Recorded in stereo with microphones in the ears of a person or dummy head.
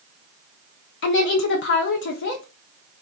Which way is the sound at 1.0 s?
60° left (ahead or behind).